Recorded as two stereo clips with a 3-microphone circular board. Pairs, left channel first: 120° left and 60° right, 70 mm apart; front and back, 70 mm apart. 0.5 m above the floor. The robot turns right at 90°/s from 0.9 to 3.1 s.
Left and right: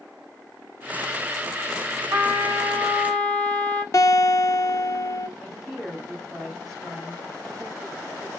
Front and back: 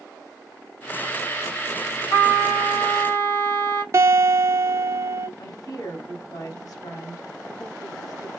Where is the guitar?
150° left, 0.7 m.